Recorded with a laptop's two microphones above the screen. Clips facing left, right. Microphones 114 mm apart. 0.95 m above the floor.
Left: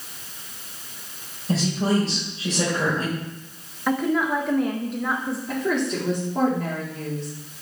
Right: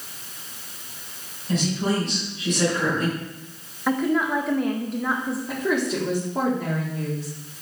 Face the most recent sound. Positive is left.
turn(degrees=-5)  # may be behind; listen again after turning